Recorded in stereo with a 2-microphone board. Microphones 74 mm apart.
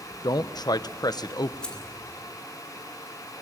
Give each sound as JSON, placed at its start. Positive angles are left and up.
{"t": 0.2, "sound": "a man speaking", "side_deg": 65, "distance_m": 1.1}
{"t": 1.6, "sound": "keys jangling", "side_deg": 15, "distance_m": 2.0}